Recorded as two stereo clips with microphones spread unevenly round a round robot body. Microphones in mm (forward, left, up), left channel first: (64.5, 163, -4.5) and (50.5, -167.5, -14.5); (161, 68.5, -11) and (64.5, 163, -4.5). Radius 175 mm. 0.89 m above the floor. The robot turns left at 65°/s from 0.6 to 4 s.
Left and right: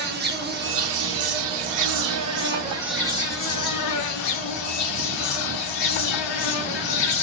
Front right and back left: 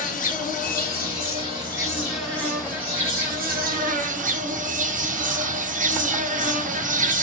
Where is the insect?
30° right, 0.8 m; by 7.2 s 110° left, 0.8 m.